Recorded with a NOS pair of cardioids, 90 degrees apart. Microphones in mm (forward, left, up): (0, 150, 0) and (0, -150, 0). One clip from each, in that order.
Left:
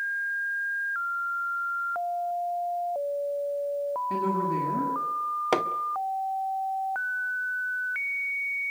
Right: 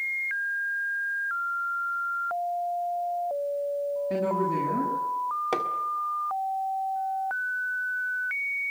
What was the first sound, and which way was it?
A woman speaking, 10° right.